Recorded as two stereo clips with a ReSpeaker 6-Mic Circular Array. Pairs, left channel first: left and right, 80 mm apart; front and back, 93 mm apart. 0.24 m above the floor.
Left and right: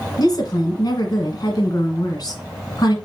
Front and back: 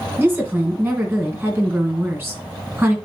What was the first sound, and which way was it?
A woman speaking, 115° left.